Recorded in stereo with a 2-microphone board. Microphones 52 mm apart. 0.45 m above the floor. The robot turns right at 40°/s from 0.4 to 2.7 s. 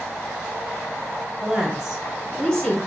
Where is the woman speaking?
20° right, 1.7 m; by 2.8 s 30° left, 1.7 m.